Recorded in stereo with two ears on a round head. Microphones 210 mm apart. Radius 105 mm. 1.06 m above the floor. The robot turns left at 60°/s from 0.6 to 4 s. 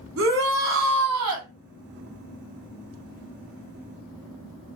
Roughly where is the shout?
Ahead right.